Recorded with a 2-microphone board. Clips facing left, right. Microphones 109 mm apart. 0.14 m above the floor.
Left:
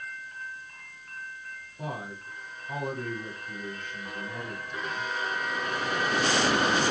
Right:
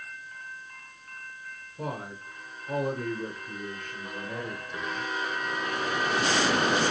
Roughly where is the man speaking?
Right.